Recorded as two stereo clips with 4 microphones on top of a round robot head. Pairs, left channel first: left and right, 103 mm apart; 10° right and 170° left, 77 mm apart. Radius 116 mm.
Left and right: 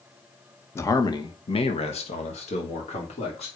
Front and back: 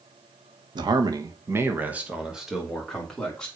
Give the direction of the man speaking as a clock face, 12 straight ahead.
7 o'clock.